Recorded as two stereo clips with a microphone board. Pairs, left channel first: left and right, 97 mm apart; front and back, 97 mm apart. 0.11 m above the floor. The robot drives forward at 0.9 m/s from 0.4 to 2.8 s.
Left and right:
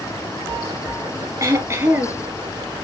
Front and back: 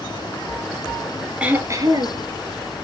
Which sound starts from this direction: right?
Throat clearing, at 1.4 s.